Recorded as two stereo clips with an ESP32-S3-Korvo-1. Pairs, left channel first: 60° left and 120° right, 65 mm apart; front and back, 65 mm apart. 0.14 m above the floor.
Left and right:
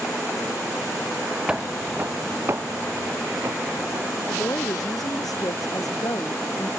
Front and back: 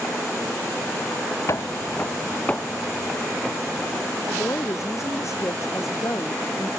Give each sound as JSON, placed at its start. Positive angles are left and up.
{"t": 1.5, "sound": "footsteps", "azimuth_deg": -40}
{"t": 4.3, "sound": "a woman speaking", "azimuth_deg": 40}